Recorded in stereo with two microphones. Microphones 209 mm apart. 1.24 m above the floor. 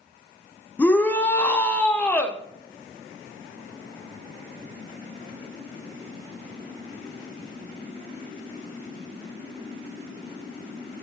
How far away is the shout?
About 0.8 m.